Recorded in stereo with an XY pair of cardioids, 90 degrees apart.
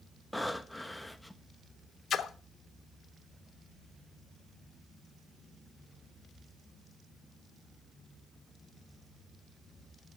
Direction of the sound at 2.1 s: 65° left.